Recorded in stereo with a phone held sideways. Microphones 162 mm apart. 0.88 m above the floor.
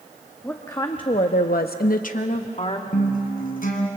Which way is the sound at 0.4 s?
15° left (ahead or behind).